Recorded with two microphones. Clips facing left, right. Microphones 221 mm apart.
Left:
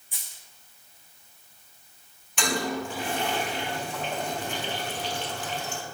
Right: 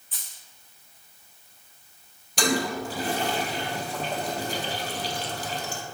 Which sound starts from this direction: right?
A toilet flushing, at 2.4 s.